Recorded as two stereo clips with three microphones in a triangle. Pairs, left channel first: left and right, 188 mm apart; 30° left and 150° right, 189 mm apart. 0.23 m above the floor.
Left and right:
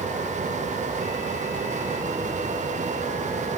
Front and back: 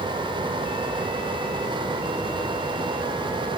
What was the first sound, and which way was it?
Only background noise.